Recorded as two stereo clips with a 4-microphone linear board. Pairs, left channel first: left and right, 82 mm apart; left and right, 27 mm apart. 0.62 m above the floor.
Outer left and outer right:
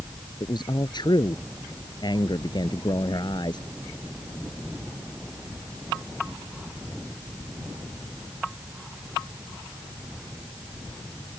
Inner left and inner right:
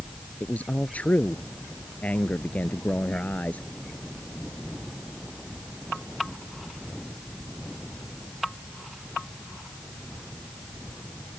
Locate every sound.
0.4 s a man speaking: 65° left (ahead or behind)